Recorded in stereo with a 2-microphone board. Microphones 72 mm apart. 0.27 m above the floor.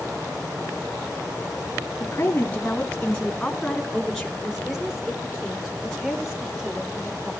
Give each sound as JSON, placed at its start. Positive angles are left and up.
{"t": 2.0, "sound": "a woman speaking", "side_deg": 35, "distance_m": 2.0}